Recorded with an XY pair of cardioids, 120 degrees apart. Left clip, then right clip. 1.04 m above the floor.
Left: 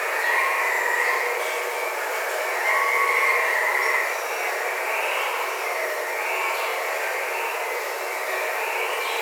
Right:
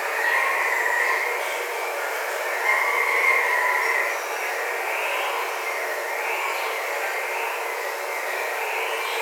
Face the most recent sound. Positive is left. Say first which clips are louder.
# even
turn(degrees=20)